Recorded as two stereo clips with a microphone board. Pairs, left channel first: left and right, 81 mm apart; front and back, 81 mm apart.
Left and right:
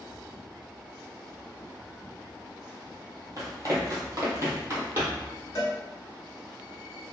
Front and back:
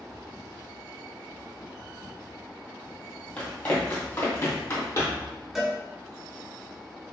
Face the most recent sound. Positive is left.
turn(degrees=95)